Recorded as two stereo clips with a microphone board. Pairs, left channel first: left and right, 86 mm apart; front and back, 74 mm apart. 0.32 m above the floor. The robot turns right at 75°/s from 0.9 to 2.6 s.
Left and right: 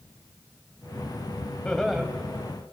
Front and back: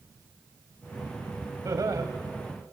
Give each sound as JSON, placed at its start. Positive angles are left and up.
{"t": 1.6, "sound": "laughter", "azimuth_deg": 160, "distance_m": 1.5}